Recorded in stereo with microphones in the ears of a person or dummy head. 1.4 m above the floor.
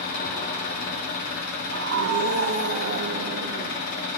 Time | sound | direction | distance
0.0 | an engine running | 50° left (ahead or behind) | 1.4 m
1.7 | a scream | 70° right (ahead or behind) | 0.7 m